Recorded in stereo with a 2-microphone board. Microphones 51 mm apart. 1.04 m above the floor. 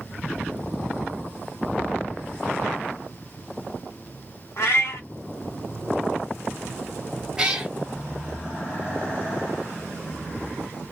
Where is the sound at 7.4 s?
15° right (ahead or behind), 0.9 m.